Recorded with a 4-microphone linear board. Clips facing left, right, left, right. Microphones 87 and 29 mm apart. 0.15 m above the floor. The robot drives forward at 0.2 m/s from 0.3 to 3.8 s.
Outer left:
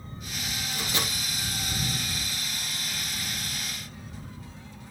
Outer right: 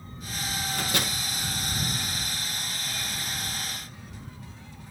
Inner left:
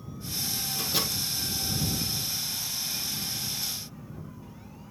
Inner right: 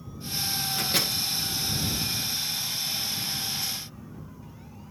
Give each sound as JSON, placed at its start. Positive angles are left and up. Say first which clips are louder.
{"t": 0.7, "sound": "a microwave", "louder": "outer right 1 dB, inner right 3 dB", "side_deg": -60, "distance_m": 2.5}